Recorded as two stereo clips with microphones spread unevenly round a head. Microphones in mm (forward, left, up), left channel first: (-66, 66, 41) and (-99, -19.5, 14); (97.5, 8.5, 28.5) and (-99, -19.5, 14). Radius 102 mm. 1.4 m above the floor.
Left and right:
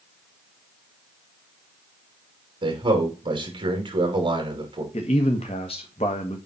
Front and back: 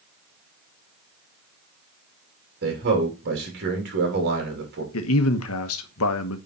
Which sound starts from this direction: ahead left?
A man speaking, at 4.9 s.